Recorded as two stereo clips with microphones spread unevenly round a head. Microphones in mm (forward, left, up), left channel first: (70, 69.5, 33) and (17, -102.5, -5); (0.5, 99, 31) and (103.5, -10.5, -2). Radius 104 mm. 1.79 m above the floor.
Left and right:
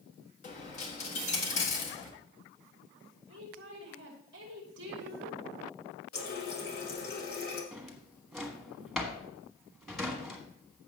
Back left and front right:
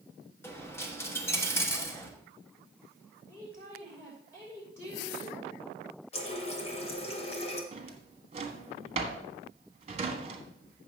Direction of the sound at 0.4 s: 80° left.